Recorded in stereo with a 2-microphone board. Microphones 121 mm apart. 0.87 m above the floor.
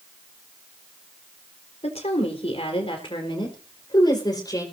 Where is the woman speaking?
60° left (ahead or behind), 4 m; by 4.7 s 30° left (ahead or behind), 4 m.